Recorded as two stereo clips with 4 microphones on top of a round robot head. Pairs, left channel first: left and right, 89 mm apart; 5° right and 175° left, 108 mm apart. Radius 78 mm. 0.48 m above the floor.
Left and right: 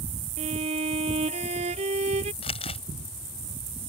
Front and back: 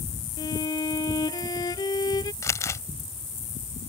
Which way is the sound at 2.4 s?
60° left.